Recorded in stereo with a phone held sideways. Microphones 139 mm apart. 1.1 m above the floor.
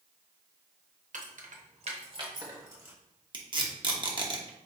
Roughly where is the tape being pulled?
Right.